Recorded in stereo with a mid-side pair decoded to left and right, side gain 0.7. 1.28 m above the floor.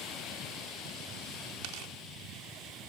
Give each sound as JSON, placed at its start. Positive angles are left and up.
{"t": 1.6, "sound": "tearing paper", "azimuth_deg": -70}